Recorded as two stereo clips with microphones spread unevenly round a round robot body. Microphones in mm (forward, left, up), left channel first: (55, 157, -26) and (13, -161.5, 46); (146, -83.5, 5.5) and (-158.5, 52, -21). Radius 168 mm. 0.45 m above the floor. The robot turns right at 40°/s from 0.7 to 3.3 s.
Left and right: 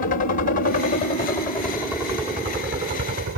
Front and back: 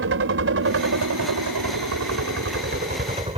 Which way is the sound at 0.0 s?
120° left.